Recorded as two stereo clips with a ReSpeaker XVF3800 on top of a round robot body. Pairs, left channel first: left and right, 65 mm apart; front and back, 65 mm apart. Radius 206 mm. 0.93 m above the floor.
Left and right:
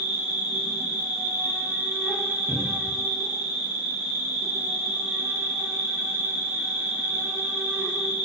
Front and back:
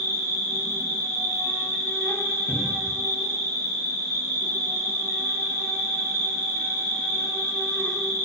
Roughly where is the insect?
Ahead right.